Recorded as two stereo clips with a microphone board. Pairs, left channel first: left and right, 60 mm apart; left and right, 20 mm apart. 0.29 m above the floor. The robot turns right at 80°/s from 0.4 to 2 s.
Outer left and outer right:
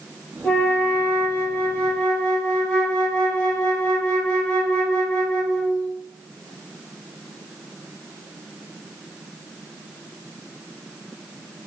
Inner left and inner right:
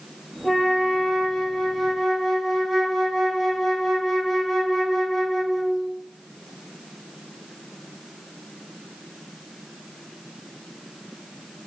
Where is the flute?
15° left, 1.5 m; by 5.9 s 140° left, 1.5 m.